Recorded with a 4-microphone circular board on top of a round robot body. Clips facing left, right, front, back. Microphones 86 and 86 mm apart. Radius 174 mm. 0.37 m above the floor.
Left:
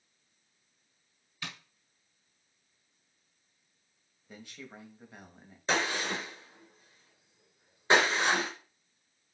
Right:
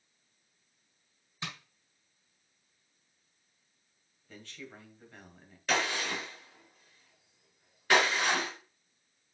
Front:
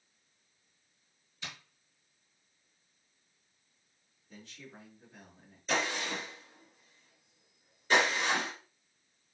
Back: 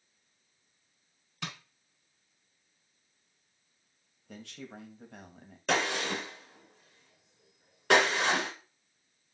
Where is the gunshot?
160° left, 3 m.